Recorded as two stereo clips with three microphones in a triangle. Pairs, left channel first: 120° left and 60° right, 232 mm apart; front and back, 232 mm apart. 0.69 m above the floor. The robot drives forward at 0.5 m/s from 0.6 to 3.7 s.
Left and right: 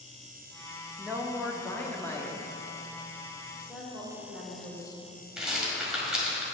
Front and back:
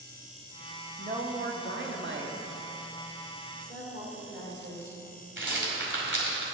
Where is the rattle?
150° right, 1.6 m.